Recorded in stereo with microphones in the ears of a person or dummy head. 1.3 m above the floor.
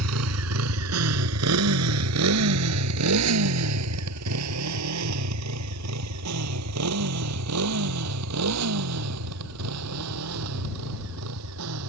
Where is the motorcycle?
80° right.